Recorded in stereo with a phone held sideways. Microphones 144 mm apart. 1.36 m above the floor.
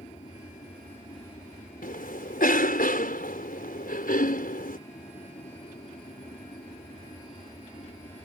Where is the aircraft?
45° left (ahead or behind).